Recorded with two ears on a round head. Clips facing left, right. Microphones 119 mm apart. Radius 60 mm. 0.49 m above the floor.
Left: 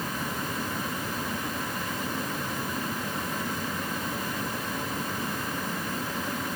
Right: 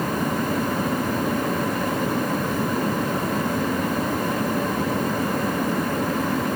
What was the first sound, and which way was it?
Only background noise.